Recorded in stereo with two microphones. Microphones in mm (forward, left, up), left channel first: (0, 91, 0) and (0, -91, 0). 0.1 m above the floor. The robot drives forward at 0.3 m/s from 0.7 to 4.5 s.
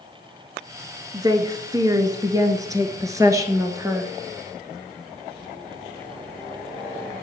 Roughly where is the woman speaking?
Right.